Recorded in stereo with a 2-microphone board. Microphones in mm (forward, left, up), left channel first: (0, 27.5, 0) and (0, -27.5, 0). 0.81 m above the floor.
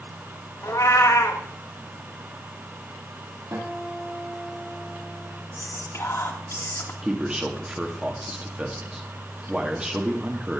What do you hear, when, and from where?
0.6 s a cat meowing: 70° left (ahead or behind), 1.3 m
3.5 s a guitar: 85° right, 6 m
5.6 s whispering: 55° left (ahead or behind), 2 m
7.0 s a man speaking: 20° right (ahead or behind), 1.6 m